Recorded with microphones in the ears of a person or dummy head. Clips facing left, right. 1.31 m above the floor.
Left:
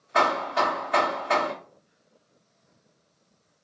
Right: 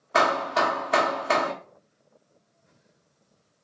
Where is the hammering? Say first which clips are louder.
Right 1 dB; 65° right (ahead or behind), 1.1 m.